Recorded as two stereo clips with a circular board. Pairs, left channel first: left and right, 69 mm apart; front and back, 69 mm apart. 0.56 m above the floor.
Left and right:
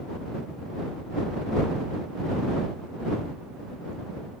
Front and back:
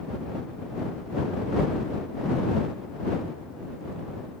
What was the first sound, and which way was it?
Only background noise.